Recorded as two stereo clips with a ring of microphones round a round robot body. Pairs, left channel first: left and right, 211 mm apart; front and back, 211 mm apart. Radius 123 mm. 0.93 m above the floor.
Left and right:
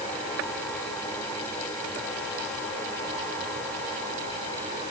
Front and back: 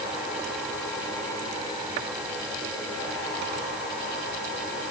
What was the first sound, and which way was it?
Only background noise.